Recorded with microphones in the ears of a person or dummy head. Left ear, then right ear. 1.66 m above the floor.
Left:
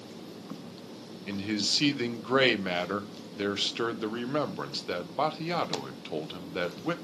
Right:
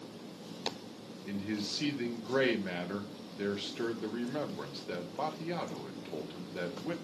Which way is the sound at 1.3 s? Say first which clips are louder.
Left 8 dB; 35° left (ahead or behind).